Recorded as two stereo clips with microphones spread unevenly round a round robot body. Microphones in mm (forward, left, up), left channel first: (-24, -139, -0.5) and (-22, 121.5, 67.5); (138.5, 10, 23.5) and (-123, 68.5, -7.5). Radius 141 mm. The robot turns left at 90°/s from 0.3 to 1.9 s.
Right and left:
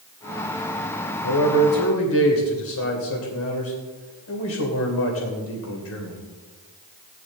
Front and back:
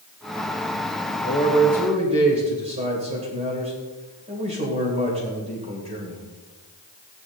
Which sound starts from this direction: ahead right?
A man speaking, at 1.2 s.